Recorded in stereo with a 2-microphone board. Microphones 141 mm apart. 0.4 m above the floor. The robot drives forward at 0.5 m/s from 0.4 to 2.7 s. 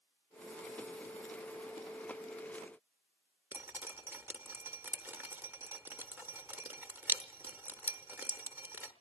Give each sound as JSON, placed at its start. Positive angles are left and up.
{"t": 3.5, "sound": "dripping", "side_deg": -15, "distance_m": 0.8}